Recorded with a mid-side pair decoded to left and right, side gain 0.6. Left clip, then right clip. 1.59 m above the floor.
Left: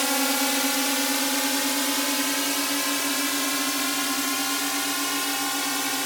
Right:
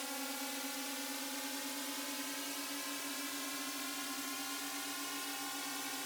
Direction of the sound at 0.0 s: 70° left.